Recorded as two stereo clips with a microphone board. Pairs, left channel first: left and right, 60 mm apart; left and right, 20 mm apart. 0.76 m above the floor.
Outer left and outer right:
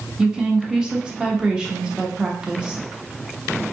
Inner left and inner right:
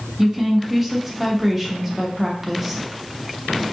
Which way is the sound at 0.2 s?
15° right (ahead or behind).